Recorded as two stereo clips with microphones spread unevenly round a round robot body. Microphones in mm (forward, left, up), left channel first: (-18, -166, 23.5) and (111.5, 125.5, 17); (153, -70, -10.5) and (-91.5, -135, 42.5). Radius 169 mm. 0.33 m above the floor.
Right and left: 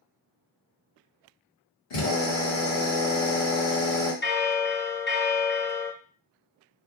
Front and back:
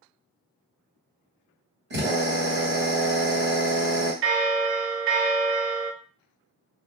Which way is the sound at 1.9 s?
120° right.